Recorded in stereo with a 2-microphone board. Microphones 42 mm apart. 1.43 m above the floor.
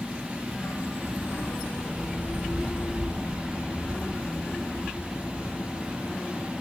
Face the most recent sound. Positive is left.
turn(degrees=45)  # may be behind; listen again after turning